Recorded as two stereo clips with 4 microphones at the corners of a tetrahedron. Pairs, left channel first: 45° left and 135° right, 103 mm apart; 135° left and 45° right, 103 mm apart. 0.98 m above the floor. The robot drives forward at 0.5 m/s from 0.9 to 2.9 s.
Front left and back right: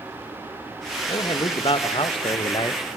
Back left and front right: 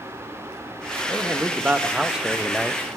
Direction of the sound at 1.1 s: 25° left.